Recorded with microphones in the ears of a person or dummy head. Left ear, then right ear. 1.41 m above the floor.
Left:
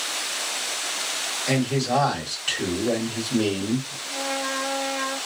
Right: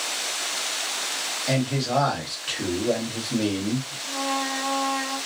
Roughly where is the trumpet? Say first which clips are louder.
Right 1 dB; right.